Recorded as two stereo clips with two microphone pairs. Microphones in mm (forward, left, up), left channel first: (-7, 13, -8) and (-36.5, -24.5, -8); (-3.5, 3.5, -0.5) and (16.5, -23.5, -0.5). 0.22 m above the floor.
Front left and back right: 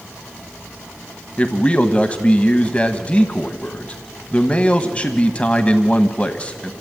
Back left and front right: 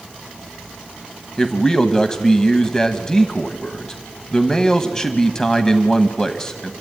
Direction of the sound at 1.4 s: 75° left.